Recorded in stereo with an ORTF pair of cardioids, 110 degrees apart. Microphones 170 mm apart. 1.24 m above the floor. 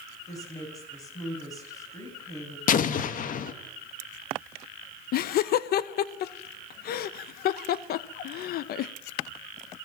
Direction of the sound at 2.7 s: 55° left.